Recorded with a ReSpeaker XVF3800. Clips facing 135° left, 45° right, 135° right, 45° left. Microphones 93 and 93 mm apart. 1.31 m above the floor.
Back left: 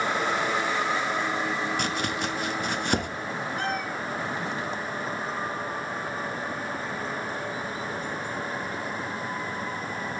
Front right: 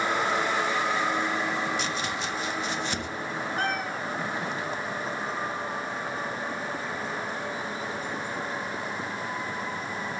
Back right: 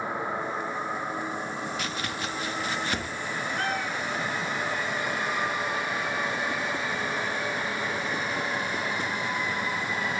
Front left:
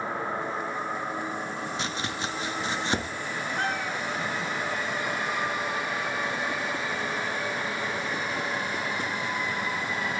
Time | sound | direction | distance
1.8 | chopping | 110° left | 1.1 m
3.6 | a cat meowing | 15° right | 2 m